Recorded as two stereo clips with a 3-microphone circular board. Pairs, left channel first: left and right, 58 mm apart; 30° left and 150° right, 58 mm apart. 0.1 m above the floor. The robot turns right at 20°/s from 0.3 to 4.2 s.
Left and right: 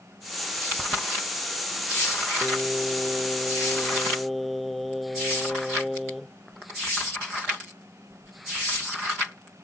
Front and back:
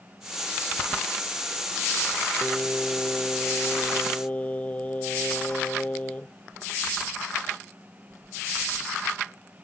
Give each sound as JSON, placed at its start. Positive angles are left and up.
{"t": 2.4, "sound": "singing", "azimuth_deg": -35}